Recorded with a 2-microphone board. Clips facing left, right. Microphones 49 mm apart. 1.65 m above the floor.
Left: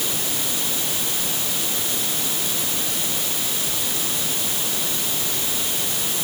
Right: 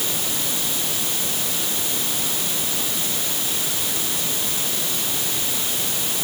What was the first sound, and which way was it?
Only background noise.